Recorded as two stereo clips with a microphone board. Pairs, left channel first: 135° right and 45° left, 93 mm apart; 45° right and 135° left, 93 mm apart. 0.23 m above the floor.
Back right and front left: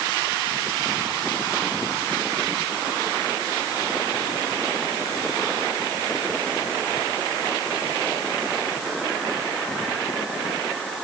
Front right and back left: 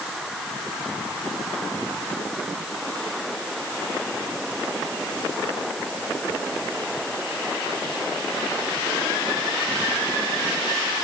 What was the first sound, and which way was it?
Only background noise.